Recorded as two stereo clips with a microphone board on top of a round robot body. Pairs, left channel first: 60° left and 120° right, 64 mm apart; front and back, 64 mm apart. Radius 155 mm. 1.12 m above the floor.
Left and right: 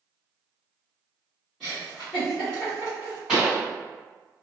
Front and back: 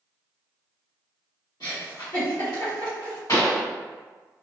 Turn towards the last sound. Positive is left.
turn(degrees=-40)